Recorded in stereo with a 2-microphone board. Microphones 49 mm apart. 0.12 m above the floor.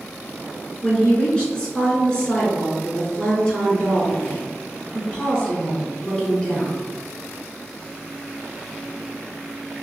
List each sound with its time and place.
0.8 s a woman speaking: 20° left (ahead or behind), 1.1 m